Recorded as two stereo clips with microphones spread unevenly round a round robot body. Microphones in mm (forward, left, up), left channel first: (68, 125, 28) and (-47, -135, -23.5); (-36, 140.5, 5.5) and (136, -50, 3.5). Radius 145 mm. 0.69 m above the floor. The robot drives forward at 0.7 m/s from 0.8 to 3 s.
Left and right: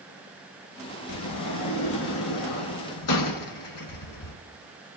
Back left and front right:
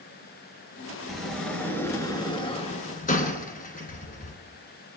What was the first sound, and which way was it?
A sliding door, 40° left.